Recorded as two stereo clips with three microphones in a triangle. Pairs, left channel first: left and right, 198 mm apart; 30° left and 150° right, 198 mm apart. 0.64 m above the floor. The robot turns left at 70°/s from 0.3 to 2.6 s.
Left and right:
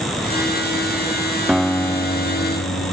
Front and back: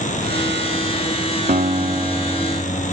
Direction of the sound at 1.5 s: 175° right.